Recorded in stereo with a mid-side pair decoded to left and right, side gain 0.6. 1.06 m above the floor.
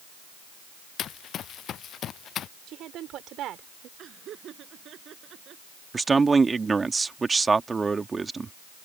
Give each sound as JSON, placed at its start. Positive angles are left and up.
{"t": 1.0, "sound": "running footsteps", "azimuth_deg": 50}
{"t": 2.7, "sound": "a woman speaking", "azimuth_deg": -55}
{"t": 4.0, "sound": "laughter", "azimuth_deg": -50}
{"t": 5.9, "sound": "a man speaking", "azimuth_deg": -20}